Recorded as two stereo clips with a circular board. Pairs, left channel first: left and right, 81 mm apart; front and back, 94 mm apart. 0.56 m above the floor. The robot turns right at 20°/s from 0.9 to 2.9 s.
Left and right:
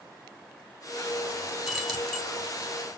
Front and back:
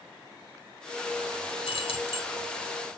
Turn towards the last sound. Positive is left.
turn(degrees=25)